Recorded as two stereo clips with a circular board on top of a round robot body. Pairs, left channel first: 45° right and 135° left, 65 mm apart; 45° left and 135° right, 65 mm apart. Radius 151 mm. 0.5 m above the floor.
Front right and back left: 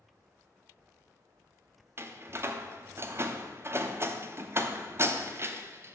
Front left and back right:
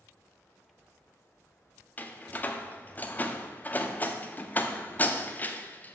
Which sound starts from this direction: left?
A door slam, at 2.0 s.